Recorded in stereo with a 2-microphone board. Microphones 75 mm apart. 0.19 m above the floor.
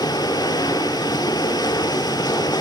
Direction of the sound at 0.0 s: 75° left (ahead or behind).